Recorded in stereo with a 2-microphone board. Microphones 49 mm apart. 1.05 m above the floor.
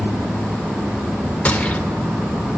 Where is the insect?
45° right (ahead or behind), 3 m.